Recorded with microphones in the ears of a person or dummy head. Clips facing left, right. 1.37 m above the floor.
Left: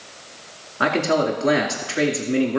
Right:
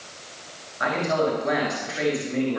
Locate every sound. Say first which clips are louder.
0.8 s a man speaking: left 4 dB; 50° left (ahead or behind), 2.5 m